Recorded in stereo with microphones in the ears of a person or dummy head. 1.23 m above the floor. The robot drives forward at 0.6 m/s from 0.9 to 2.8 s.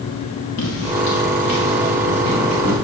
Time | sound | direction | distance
0.6 | footsteps | 50° left (ahead or behind) | 1.8 m